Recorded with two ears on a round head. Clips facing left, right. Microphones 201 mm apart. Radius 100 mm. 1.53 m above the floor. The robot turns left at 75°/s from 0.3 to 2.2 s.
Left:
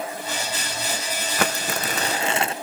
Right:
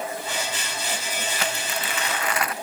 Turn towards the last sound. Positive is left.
turn(degrees=35)